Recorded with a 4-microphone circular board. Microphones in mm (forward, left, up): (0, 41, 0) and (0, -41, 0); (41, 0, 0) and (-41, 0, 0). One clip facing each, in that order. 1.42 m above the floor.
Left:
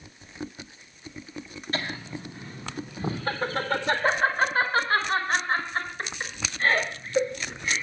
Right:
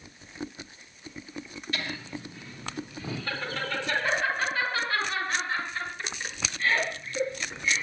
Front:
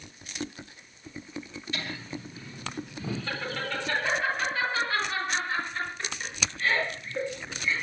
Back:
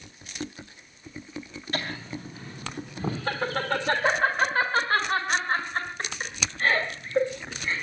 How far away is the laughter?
About 3.5 m.